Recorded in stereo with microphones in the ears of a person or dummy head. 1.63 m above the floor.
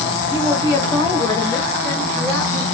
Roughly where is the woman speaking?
Left.